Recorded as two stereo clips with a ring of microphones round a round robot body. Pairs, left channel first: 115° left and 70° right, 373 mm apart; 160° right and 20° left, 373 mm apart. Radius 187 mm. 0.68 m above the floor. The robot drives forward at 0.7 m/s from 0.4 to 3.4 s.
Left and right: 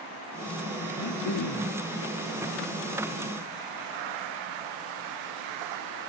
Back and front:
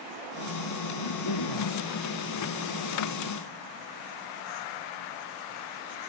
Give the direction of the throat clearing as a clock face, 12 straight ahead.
7 o'clock.